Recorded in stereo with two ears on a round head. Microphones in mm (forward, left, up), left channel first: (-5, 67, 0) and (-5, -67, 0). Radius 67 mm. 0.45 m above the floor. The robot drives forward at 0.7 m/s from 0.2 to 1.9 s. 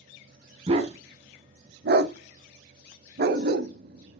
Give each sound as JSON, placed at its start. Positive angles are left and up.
{"t": 0.7, "sound": "a dog barking", "side_deg": -40, "distance_m": 0.9}